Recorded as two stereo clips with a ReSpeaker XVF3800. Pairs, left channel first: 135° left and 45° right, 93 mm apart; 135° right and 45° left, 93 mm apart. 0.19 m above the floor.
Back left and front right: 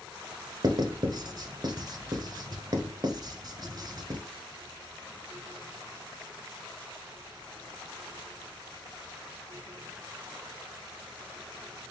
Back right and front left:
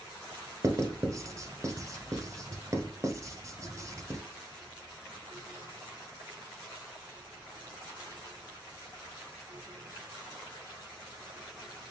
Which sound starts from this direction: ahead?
Writing, at 0.6 s.